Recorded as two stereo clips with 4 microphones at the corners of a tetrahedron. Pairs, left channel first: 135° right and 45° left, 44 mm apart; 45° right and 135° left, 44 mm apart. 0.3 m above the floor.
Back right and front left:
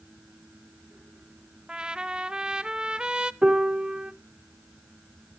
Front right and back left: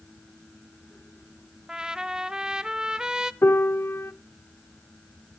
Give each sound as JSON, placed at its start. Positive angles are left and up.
{"t": 1.7, "sound": "a trumpet", "azimuth_deg": 85, "distance_m": 0.7}
{"t": 3.4, "sound": "a piano", "azimuth_deg": -25, "distance_m": 0.5}